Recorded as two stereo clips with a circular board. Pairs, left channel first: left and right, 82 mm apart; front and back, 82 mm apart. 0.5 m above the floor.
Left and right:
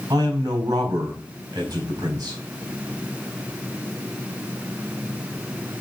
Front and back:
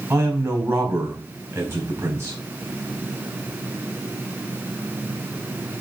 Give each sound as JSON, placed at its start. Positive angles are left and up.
{"t": 0.1, "sound": "a man speaking", "azimuth_deg": -125, "distance_m": 4.0}